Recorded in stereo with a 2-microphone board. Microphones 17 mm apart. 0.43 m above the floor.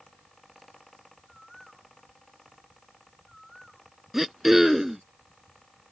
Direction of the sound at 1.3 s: Centre (ahead or behind).